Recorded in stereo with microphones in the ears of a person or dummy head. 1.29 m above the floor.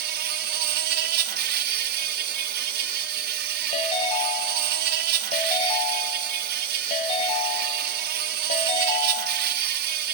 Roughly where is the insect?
Right.